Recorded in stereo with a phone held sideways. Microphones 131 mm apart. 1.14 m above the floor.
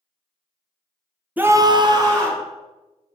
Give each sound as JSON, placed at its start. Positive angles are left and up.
{"t": 1.4, "sound": "a scream", "side_deg": -15, "distance_m": 0.6}